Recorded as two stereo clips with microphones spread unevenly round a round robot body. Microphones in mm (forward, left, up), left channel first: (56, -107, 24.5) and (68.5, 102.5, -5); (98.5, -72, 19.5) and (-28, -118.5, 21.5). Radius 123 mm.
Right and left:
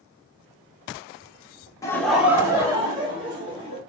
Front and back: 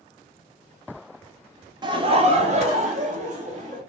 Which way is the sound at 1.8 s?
170° right.